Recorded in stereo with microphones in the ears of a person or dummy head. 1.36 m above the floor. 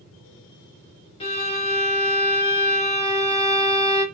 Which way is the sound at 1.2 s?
30° left (ahead or behind).